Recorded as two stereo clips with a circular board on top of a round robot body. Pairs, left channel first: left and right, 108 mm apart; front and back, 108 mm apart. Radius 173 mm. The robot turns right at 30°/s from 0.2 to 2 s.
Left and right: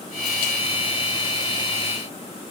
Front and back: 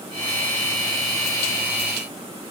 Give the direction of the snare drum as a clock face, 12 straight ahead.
I don't hear a snare drum.